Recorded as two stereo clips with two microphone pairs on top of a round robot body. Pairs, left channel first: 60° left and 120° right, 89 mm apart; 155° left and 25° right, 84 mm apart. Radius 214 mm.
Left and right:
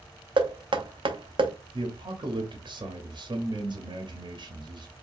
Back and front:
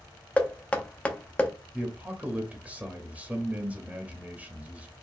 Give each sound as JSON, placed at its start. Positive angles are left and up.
{"t": 0.4, "sound": "knocking", "azimuth_deg": -130, "distance_m": 0.9}
{"t": 1.7, "sound": "a man speaking", "azimuth_deg": -100, "distance_m": 1.2}